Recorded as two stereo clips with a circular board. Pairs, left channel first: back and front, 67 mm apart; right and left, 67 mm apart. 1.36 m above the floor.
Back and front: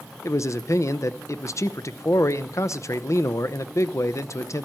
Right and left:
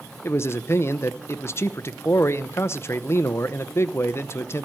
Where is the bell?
I don't hear a bell.